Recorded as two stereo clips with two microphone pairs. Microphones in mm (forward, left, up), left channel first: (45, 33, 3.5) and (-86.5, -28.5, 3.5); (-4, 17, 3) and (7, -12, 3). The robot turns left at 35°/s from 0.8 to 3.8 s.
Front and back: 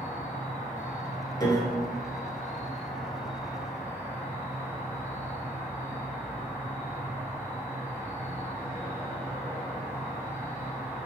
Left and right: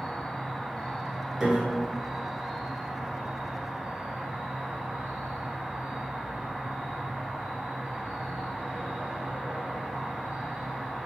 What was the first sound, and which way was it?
An insect, 55° left.